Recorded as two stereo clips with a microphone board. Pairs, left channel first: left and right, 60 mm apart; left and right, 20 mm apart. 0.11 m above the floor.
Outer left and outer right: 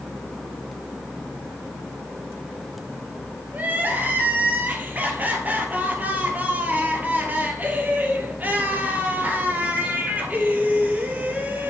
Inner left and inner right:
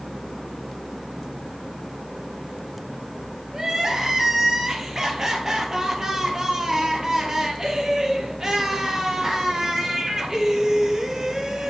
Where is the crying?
30° right (ahead or behind), 1.7 m.